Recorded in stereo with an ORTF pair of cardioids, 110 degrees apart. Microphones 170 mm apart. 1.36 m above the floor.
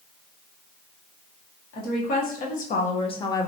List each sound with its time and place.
1.7 s a woman speaking: 60° left, 1.5 m; by 3.5 s 15° left, 0.6 m